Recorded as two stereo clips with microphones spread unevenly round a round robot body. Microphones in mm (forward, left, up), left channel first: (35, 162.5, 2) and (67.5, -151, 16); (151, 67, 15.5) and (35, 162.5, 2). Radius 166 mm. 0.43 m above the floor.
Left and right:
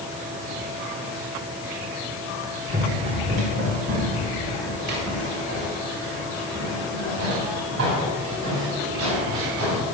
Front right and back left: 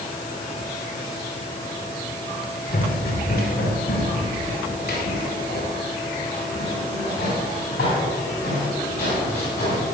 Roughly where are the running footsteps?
Ahead right.